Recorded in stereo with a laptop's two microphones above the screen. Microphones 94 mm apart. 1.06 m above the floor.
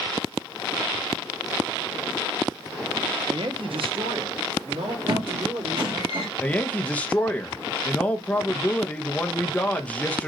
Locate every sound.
3.3 s a woman speaking: 55° right (ahead or behind), 0.5 m; by 6.1 s 80° right, 2 m
5.1 s a squeak: 60° right (ahead or behind), 1.7 m
6.4 s a woman speaking: 15° left (ahead or behind), 0.6 m